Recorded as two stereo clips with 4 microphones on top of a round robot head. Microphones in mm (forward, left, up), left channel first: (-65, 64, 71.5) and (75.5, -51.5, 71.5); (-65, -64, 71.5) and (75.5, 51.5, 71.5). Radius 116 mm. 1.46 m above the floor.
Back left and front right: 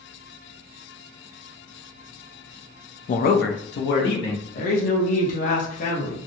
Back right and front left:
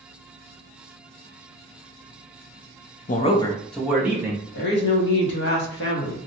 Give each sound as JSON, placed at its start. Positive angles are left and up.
{"t": 3.1, "sound": "a man speaking", "azimuth_deg": -175, "distance_m": 0.5}
{"t": 4.5, "sound": "a woman speaking", "azimuth_deg": -170, "distance_m": 0.9}